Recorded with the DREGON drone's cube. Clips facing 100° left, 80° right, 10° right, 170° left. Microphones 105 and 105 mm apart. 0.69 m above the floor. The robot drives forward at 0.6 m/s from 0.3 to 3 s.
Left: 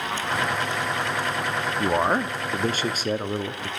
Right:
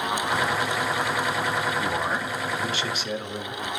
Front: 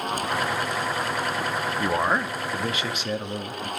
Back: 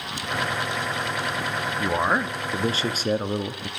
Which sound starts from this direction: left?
A man speaking, at 1.8 s.